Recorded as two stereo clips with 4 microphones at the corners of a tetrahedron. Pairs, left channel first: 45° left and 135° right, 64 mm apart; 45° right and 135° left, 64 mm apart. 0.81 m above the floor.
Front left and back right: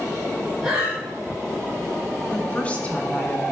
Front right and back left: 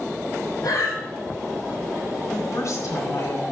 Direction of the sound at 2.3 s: 20° right.